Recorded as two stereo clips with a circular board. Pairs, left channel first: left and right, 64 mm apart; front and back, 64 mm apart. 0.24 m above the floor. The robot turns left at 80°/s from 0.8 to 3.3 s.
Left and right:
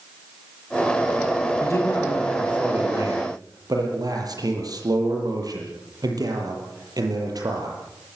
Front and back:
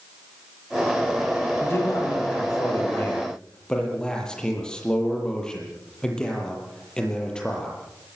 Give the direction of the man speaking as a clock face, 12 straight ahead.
10 o'clock.